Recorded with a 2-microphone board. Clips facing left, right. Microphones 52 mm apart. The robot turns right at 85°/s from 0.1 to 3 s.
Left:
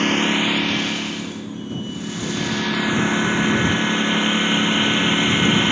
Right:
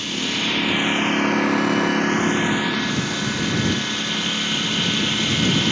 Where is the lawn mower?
135° left; by 5.7 s 20° left.